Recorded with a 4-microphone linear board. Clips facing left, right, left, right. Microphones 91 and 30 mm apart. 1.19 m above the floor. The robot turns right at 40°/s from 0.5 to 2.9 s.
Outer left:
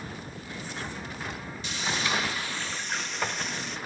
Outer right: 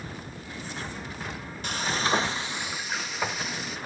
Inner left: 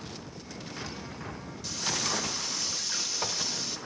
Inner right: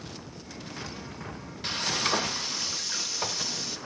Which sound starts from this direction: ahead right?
Frying, at 1.6 s.